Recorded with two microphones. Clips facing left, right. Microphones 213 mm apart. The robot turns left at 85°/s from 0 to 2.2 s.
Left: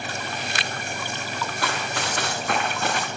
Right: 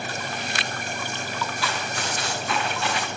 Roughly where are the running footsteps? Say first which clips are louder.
Left 2 dB; left.